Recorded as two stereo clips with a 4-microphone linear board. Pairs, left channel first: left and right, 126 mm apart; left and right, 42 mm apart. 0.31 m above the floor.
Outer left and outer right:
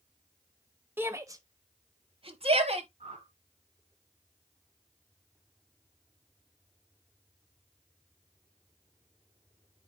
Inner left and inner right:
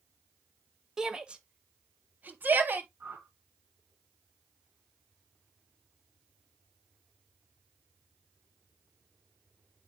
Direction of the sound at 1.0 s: 15° right (ahead or behind).